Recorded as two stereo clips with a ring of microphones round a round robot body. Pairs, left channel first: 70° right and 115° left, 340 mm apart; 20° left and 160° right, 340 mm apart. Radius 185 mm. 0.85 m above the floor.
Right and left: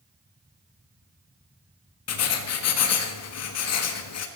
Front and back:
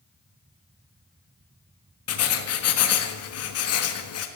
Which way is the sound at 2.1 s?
25° right.